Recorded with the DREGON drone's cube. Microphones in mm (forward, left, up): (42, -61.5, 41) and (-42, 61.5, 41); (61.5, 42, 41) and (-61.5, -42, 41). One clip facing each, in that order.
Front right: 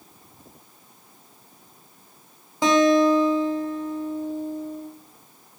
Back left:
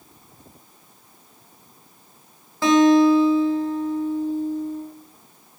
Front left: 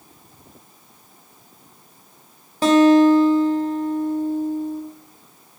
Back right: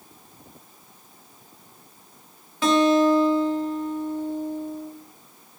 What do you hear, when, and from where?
2.6 s a guitar: 5° left, 0.6 m